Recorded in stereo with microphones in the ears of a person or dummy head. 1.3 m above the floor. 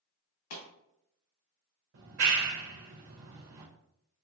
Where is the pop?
65° left (ahead or behind), 2.5 m.